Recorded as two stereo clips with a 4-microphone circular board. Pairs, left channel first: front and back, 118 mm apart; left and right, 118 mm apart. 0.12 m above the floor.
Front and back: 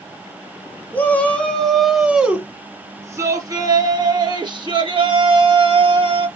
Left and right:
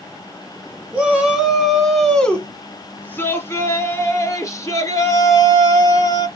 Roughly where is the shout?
Ahead right.